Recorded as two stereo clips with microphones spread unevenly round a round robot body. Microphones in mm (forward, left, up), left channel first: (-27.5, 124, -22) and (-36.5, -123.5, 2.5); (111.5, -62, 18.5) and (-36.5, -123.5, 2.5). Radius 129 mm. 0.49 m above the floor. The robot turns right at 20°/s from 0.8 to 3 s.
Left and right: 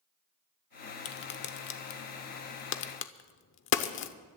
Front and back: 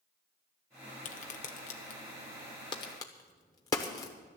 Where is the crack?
55° left, 0.7 m; by 4.1 s 95° left, 0.7 m.